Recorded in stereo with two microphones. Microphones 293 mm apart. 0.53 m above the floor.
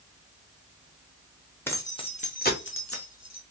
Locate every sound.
1.7 s keys jangling: 5° left (ahead or behind), 0.9 m; by 3.4 s 60° left (ahead or behind), 0.9 m